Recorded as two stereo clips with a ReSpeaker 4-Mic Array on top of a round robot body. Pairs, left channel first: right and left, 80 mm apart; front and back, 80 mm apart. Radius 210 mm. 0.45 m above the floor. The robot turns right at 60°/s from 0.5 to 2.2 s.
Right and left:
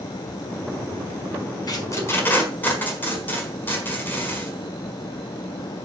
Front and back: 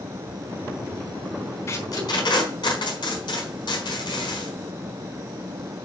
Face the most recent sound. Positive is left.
turn(degrees=-25)